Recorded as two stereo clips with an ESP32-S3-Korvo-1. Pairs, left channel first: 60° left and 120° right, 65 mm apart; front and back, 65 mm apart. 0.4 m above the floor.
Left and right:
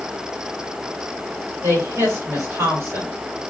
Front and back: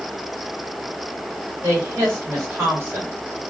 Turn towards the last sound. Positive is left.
turn(degrees=-135)